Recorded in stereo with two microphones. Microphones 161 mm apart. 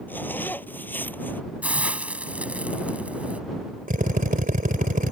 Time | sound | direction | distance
0.1 | a zipper | 10° left (ahead or behind) | ?
1.6 | a hiss | 10° right (ahead or behind) | ?
3.9 | a drill | 60° right (ahead or behind) | ?